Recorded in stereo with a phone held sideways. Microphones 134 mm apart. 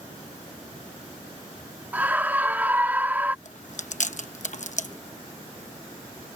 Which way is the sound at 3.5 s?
60° left (ahead or behind).